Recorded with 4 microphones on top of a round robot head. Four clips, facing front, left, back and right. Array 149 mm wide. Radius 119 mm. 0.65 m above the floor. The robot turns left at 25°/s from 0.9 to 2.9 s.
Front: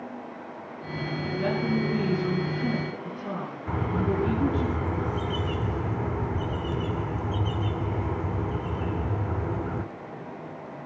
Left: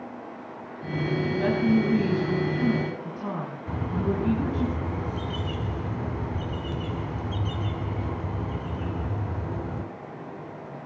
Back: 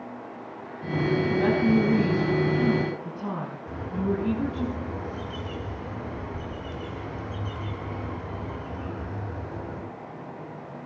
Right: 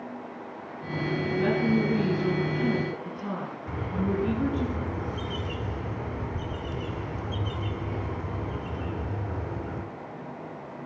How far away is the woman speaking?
About 5.5 m.